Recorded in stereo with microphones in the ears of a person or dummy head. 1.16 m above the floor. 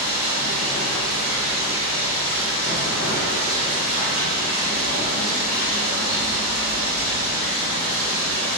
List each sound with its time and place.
0.0 s running water: 40° left (ahead or behind), 1.2 m